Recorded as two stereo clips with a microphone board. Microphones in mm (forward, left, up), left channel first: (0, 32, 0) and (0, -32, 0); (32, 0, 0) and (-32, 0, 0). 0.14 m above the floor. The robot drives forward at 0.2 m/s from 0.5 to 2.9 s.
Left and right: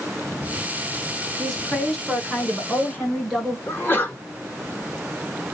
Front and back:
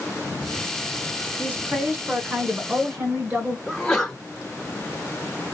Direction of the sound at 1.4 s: 175° left.